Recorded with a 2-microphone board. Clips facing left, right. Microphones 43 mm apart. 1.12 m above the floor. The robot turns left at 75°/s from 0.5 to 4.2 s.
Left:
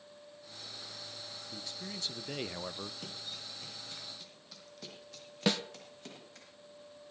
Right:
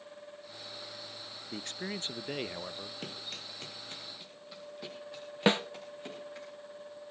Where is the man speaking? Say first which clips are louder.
Right 7 dB; 100° right, 0.5 m; by 2.9 s 155° left, 0.5 m.